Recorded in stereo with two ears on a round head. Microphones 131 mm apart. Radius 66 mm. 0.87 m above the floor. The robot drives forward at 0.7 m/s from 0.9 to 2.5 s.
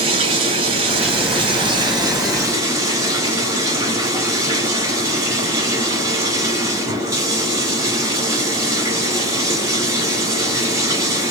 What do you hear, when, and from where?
0.0 s running water: 40° right (ahead or behind), 0.8 m; by 11.3 s 25° right (ahead or behind), 1.3 m